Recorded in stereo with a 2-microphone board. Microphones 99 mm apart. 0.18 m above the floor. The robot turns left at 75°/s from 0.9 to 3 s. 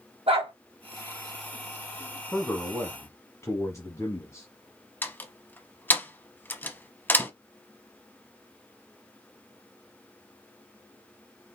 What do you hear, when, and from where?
0.3 s a dog barking: 75° right (ahead or behind), 2.5 m
2.3 s a man speaking: 165° left, 1.2 m; by 4.5 s 110° left, 1.2 m
5.0 s a door slam: 20° left (ahead or behind), 0.8 m